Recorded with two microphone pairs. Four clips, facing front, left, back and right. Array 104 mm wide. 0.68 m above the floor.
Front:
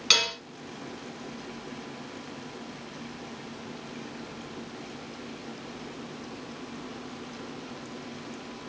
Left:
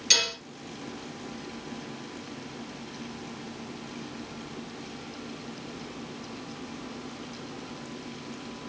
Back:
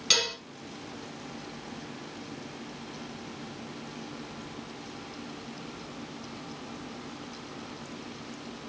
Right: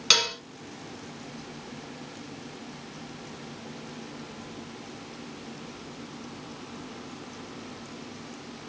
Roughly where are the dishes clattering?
Right.